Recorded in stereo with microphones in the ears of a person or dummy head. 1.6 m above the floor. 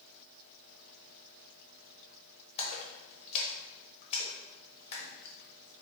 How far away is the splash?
About 0.9 m.